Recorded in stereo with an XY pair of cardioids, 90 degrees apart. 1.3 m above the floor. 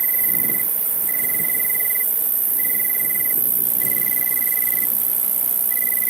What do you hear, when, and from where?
0.0 s an insect: 40° right